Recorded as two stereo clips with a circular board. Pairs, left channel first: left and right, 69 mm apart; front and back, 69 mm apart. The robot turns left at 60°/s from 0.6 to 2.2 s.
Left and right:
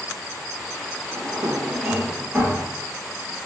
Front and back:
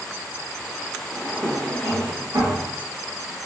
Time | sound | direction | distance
1.1 | a drawer | 95° right | 0.9 m